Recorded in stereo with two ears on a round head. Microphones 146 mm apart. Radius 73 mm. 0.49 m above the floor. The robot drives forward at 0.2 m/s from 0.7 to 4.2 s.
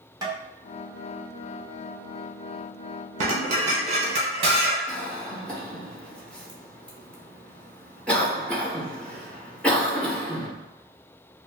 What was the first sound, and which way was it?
Tapping, 25° right (ahead or behind).